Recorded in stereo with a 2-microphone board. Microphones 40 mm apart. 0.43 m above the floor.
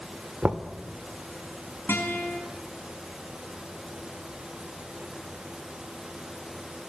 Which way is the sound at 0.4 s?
35° right (ahead or behind).